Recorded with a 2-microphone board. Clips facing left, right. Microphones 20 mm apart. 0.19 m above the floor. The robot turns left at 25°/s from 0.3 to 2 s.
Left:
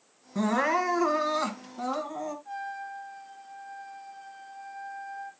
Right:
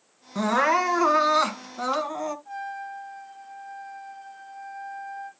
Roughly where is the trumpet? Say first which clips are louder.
Right 2 dB; centre.